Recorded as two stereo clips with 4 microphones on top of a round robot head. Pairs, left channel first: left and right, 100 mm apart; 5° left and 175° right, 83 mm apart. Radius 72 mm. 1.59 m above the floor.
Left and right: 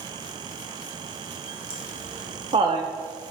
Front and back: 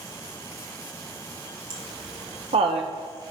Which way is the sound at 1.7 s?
140° right.